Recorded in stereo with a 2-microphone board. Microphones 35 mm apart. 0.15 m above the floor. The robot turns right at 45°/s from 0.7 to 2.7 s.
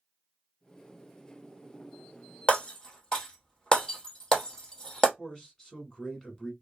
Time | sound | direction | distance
2.5 | breaking glass | 35° left (ahead or behind) | 1.1 m
5.2 | a man speaking | 20° left (ahead or behind) | 1.0 m